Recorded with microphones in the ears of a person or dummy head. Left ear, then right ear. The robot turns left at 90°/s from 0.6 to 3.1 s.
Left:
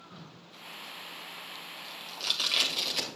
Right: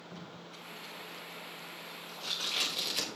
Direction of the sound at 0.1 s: 30° right (ahead or behind).